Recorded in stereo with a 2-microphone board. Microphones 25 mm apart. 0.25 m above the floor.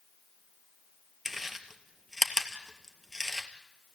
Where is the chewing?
10° right (ahead or behind), 1.8 m.